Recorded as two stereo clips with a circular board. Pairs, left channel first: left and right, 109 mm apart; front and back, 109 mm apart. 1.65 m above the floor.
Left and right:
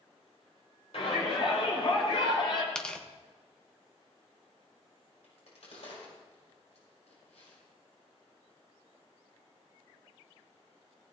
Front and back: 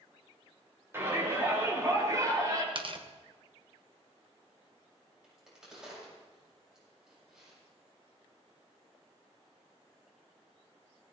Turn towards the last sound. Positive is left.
turn(degrees=95)